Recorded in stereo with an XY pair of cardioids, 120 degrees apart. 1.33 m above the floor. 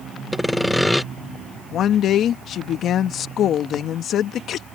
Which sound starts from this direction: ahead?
Sawing, at 0.3 s.